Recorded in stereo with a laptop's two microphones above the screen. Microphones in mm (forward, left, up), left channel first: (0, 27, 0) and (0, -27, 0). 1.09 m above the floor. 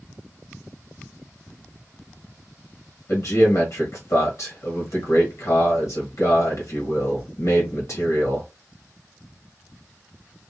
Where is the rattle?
I don't hear a rattle.